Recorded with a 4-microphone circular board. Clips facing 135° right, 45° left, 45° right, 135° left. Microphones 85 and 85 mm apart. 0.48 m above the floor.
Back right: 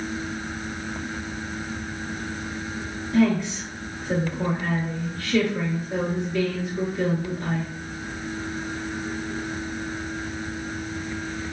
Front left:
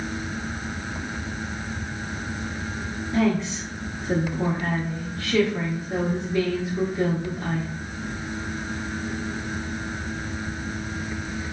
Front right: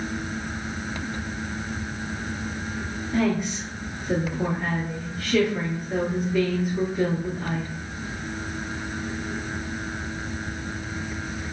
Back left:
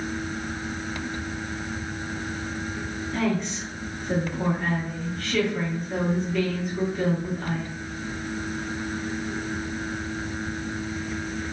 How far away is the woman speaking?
About 0.8 m.